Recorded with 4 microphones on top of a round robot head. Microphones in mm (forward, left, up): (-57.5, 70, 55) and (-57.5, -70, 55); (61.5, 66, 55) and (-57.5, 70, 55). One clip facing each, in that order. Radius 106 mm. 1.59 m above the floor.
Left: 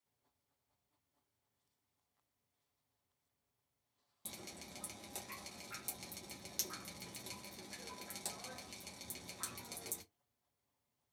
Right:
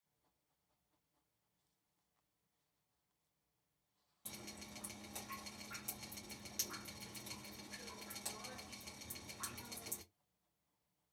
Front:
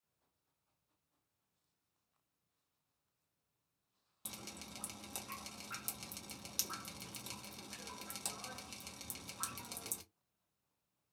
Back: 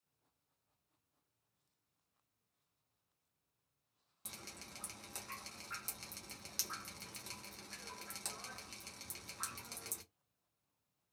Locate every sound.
4.2 s dripping: 55° left, 0.7 m